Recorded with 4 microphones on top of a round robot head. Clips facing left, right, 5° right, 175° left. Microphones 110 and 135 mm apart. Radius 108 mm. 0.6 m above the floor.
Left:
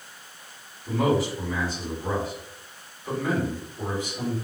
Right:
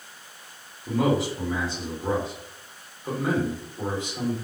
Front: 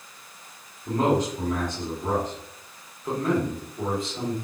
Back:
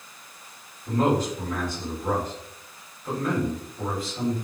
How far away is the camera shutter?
No camera shutter in this recording.